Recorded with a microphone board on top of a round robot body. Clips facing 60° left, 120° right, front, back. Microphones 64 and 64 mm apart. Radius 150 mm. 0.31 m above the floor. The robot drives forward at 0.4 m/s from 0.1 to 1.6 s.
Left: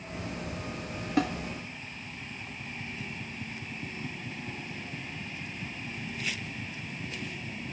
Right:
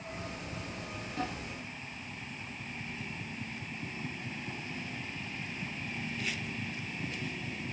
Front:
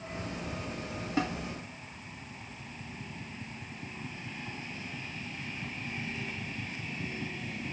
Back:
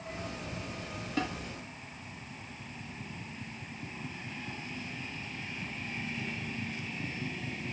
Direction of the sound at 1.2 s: 75° left.